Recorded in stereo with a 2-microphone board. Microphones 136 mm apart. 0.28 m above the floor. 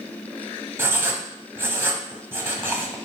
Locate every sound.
0.8 s writing: 20° right (ahead or behind), 0.8 m